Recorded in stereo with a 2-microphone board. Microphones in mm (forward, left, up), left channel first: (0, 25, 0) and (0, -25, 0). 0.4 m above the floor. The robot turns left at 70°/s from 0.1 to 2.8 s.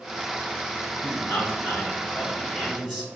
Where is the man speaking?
115° left, 1.7 m; by 3.1 s 10° right, 1.7 m.